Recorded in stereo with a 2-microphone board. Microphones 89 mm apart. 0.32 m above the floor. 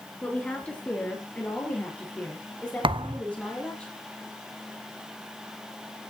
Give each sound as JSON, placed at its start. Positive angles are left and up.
{"t": 0.2, "sound": "a woman speaking", "side_deg": 15, "distance_m": 3.5}
{"t": 2.8, "sound": "a thud", "side_deg": -75, "distance_m": 0.5}